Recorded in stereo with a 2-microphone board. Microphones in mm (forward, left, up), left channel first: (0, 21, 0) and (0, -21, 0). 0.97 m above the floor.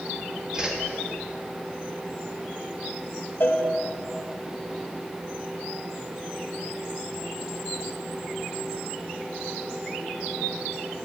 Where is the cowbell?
55° left (ahead or behind), 1.3 m.